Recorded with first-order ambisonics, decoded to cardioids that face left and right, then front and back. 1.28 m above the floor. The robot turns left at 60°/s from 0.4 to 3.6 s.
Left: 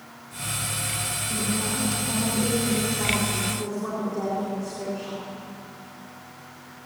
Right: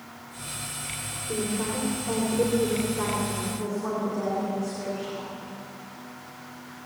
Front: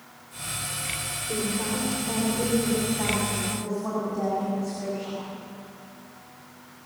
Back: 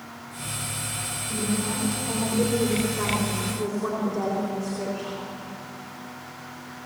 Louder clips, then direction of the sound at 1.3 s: Right 3 dB, front 1 dB; 60° right.